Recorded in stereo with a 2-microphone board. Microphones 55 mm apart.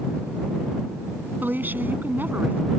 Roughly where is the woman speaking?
Right.